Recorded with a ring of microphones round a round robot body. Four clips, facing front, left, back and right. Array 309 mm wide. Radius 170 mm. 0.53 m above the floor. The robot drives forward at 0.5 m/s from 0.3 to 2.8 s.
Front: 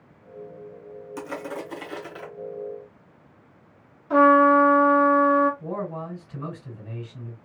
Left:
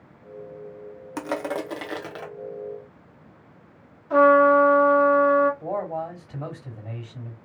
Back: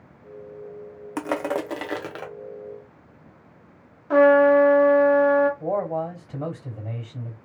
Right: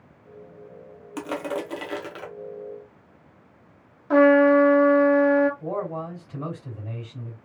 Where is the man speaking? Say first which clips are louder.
Left 1 dB, back 6 dB; 170° left, 2.5 m.